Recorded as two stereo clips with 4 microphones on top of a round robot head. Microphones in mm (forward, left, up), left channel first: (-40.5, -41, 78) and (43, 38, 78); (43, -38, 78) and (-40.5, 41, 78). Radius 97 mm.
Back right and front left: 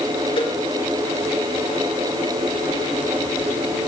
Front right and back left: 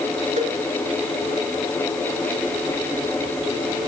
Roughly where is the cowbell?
Behind.